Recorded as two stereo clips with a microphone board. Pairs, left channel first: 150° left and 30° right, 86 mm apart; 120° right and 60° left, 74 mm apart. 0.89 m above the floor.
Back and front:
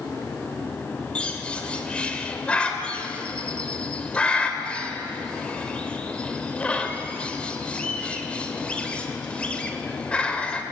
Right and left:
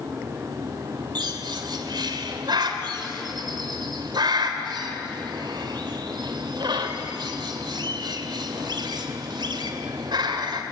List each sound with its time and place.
1.1 s a bird: 75° left, 2.5 m